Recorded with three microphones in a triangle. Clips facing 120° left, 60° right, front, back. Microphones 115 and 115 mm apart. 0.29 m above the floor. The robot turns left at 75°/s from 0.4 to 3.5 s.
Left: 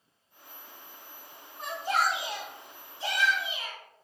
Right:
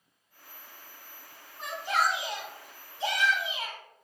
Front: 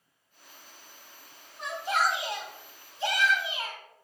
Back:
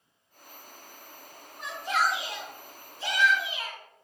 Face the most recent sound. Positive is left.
turn(degrees=-50)